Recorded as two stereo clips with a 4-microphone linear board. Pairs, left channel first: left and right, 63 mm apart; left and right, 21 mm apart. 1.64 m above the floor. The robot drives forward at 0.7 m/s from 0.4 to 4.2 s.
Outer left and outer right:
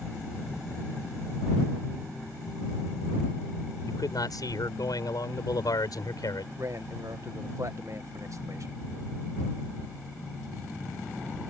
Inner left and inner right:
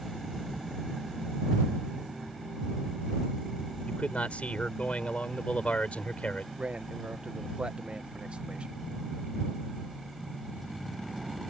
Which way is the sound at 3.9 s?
80° left.